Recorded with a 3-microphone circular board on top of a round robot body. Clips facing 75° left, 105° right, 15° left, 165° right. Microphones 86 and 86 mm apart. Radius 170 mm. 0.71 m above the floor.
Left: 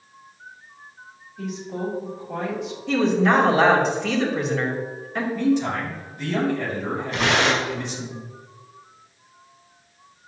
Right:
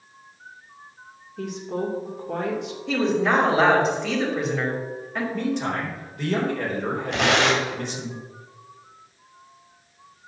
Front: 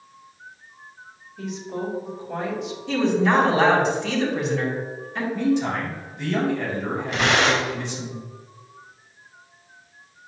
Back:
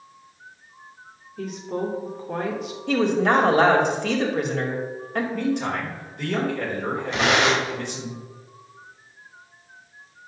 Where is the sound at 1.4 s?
125° right, 3 m.